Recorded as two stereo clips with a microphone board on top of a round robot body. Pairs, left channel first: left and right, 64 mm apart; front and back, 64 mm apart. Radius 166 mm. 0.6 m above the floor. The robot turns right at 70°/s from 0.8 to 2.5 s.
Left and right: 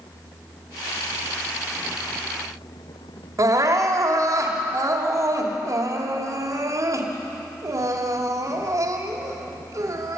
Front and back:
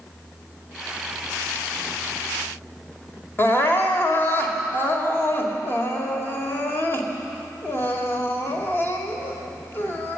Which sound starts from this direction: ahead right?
Crying, at 3.4 s.